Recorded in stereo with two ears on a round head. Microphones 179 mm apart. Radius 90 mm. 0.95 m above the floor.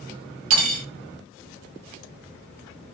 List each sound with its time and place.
0.5 s cutlery clinking: 75° right (ahead or behind), 0.7 m